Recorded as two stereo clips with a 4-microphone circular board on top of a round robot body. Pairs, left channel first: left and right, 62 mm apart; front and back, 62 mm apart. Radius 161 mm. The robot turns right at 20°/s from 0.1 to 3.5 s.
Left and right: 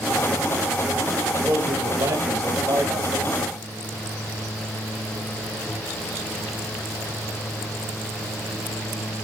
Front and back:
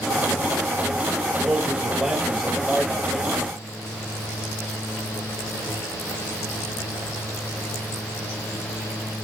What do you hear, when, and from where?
1.4 s a man speaking: 110° right, 7.5 m; by 3.4 s 70° right, 7.5 m